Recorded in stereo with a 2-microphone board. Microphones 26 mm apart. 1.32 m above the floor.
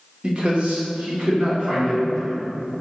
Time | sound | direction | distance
0.2 | a man speaking | 35° right (ahead or behind) | 0.7 m